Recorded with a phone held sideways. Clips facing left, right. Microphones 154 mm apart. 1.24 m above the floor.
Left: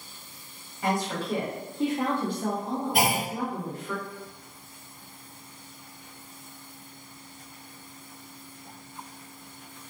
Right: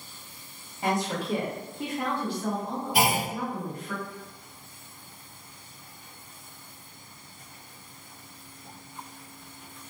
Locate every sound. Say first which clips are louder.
0.8 s a woman speaking: even; 20° right (ahead or behind), 0.7 m; by 3.9 s 90° left, 1.2 m
2.9 s a clunk: right 2 dB; 50° left (ahead or behind), 1.2 m